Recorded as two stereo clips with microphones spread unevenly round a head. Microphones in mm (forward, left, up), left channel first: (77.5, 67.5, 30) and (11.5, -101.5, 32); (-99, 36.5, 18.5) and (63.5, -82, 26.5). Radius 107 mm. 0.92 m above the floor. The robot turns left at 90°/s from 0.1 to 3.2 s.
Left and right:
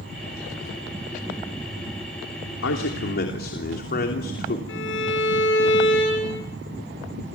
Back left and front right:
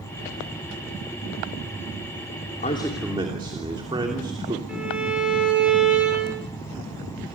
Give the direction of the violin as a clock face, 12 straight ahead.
10 o'clock.